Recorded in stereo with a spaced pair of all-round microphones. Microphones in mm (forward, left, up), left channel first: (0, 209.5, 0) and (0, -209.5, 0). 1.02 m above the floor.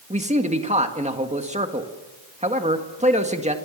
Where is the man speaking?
15° right (ahead or behind), 1.8 m.